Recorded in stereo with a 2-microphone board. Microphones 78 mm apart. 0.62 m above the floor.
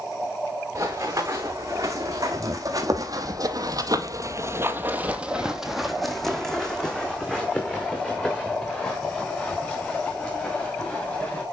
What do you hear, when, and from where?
0.8 s running footsteps: 40° right (ahead or behind), 3 m; by 11.4 s 20° left (ahead or behind), 5 m